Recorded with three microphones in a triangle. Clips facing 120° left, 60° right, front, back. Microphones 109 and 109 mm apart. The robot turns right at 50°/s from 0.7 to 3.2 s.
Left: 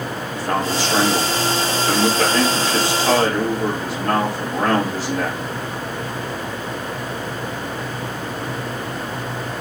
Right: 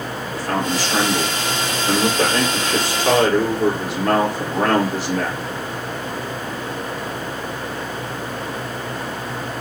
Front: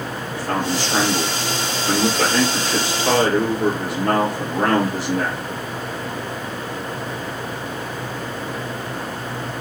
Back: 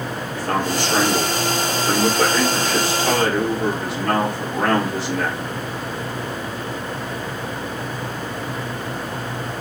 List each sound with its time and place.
0.3 s a man speaking: straight behind, 3.5 m; by 5.4 s 55° right, 3.5 m